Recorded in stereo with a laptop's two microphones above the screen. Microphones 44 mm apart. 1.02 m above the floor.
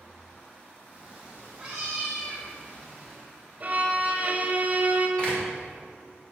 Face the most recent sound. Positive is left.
turn(degrees=25)  # may be behind; listen again after turning